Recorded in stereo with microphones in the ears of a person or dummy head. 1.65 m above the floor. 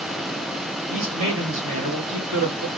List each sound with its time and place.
0.9 s a man speaking: 70° right (ahead or behind), 2 m